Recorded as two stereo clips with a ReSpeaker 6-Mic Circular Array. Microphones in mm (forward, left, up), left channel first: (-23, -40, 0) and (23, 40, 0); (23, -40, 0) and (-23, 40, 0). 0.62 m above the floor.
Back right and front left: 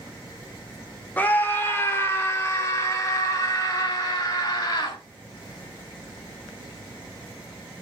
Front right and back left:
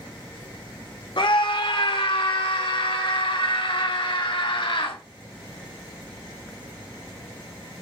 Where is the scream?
50° right, 2 m; by 5.0 s 75° right, 4 m.